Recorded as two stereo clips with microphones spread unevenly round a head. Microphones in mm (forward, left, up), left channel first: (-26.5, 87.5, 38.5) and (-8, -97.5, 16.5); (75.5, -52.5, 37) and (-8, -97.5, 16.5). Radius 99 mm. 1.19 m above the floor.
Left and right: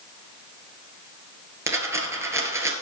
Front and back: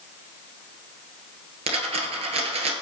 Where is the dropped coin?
165° right, 1.8 m.